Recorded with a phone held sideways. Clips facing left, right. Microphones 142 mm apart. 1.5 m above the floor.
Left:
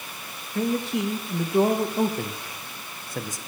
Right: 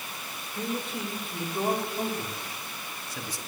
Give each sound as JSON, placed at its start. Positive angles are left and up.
{"t": 0.6, "sound": "a man speaking", "side_deg": 75, "distance_m": 2.5}